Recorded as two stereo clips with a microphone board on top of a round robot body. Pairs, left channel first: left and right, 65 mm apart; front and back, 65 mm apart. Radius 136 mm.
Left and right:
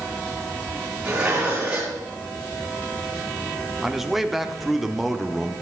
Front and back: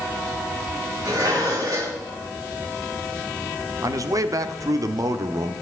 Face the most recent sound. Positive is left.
turn(degrees=-175)